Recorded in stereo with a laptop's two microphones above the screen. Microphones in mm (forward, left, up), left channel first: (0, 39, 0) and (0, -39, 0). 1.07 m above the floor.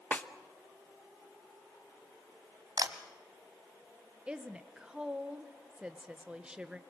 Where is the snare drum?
20° left (ahead or behind), 1.0 m.